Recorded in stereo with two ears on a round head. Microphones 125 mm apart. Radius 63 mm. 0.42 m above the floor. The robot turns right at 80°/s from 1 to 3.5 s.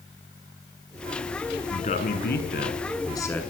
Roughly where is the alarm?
I don't hear an alarm.